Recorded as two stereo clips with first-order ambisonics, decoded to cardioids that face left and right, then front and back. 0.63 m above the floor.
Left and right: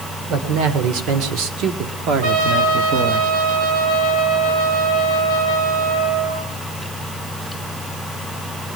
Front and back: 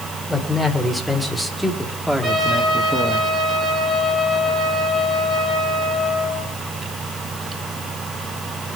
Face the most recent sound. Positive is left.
turn(degrees=-110)